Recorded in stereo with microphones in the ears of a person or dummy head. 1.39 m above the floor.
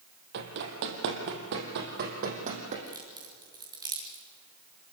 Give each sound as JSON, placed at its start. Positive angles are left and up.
{"t": 0.3, "sound": "running footsteps", "side_deg": -60, "distance_m": 3.0}
{"t": 2.9, "sound": "a crack", "side_deg": -20, "distance_m": 5.0}